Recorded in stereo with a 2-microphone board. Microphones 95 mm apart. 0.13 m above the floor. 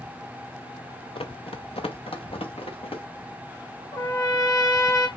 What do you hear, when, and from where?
1.1 s running footsteps: 80° left, 0.9 m; by 3.0 s 85° left, 3.5 m
3.9 s a trumpet: 40° left (ahead or behind), 2.5 m